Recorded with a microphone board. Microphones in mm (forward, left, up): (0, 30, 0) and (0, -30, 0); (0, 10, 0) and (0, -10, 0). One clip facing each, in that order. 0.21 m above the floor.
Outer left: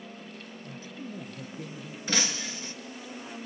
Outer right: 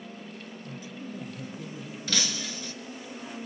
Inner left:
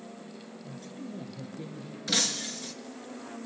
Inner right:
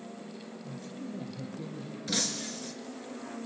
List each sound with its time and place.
0.6 s a man speaking: 30° left (ahead or behind), 6 m
2.1 s breaking glass: 25° left (ahead or behind), 1.5 m